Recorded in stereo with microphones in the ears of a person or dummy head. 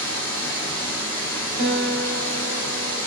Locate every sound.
0.0 s running water: 10° left (ahead or behind), 1.3 m
1.6 s a guitar: 60° right (ahead or behind), 0.7 m